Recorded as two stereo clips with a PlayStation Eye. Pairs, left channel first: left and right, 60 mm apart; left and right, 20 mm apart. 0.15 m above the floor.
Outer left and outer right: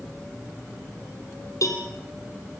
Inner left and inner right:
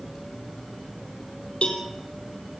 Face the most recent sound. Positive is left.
turn(degrees=60)  # may be behind; listen again after turning